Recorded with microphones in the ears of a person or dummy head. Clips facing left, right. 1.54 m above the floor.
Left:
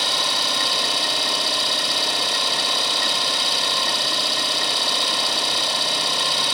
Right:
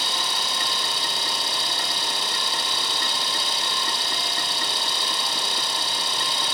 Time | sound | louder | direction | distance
0.0 | an engine running | left 4 dB | 55° left (ahead or behind) | 2.5 m